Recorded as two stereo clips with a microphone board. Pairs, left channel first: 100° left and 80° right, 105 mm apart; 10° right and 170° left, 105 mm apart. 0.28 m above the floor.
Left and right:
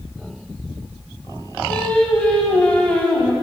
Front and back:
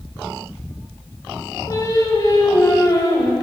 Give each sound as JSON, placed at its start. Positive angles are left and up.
{"t": 1.7, "sound": "singing", "azimuth_deg": 25, "distance_m": 1.1}